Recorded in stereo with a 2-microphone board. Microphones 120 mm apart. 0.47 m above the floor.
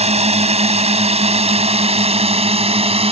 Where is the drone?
60° right (ahead or behind); by 3.1 s 50° right (ahead or behind).